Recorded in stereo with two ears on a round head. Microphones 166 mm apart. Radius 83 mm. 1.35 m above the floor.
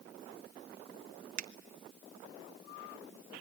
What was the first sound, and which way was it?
A finger snap, 45° right (ahead or behind).